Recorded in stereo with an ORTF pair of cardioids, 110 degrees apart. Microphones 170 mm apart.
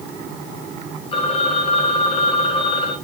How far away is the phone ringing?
About 5.5 m.